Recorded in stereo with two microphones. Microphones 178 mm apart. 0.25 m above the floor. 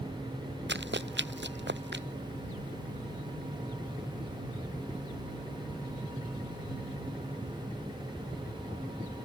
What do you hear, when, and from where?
0.7 s running footsteps: 90° right; by 2.0 s 85° right